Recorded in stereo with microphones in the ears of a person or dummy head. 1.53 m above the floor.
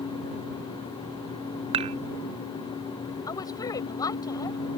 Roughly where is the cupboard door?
I don't hear a cupboard door.